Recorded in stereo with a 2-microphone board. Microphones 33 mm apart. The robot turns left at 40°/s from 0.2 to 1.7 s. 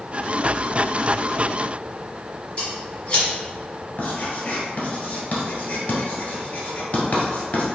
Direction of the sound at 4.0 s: 45° left (ahead or behind).